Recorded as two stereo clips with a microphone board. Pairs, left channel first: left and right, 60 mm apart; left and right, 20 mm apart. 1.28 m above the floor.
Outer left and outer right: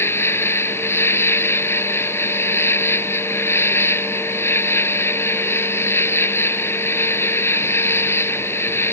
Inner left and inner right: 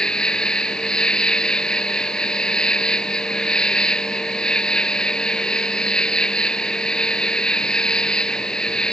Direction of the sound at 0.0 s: 50° left (ahead or behind).